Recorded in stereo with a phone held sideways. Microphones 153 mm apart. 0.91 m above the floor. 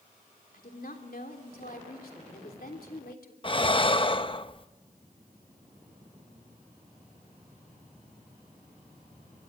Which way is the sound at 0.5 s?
75° left (ahead or behind).